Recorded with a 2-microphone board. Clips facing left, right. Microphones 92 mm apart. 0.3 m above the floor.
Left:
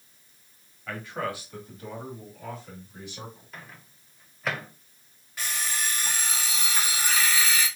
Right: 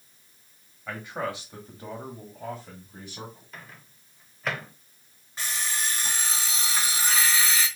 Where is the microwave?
5° left (ahead or behind), 0.7 m.